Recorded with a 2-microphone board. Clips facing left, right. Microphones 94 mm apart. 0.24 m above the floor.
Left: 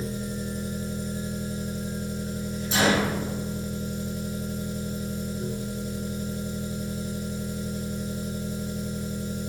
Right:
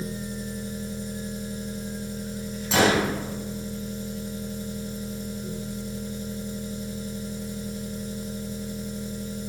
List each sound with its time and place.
0.0 s an engine running: 70° left (ahead or behind), 3 m
2.7 s a gunshot: 90° right, 3 m